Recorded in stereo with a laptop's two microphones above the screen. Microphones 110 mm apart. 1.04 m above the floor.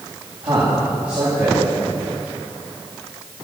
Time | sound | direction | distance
0.4 | a man speaking | 55° right (ahead or behind) | 8 m